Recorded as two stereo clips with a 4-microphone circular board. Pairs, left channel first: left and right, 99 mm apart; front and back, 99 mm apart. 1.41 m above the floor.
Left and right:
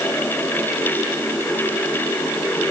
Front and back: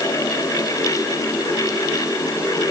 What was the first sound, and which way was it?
Only background noise.